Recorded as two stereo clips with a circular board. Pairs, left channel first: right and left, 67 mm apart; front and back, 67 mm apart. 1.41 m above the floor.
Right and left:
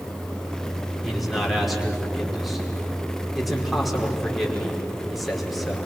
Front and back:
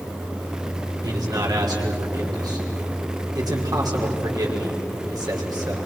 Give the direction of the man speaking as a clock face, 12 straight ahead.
6 o'clock.